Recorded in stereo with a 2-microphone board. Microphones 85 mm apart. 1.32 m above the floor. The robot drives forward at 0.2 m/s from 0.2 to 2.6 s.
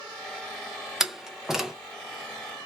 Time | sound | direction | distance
1.0 | a door slam | 5° right (ahead or behind) | 0.7 m